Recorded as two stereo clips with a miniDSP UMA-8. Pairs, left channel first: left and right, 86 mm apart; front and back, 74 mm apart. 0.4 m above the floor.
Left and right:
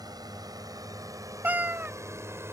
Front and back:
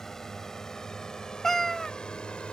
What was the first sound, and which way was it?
A drone, 80° right.